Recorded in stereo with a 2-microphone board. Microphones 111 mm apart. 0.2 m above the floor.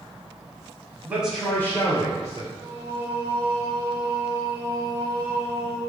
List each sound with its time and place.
1.1 s a man speaking: 20° right (ahead or behind), 1.1 m; by 2.5 s 45° left (ahead or behind), 2 m
2.6 s singing: 25° left (ahead or behind), 1.0 m